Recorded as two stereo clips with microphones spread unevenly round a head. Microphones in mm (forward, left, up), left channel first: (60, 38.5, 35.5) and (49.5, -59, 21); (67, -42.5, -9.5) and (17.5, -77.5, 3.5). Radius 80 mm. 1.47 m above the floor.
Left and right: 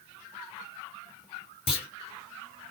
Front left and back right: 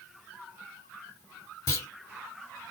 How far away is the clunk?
About 3 m.